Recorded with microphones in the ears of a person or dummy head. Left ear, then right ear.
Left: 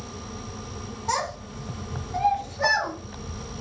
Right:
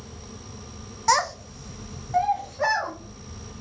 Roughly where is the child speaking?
Right.